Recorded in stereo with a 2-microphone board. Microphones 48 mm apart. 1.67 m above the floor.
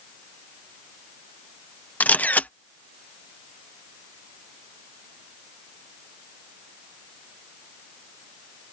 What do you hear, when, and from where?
2.0 s a camera shutter: 35° left (ahead or behind)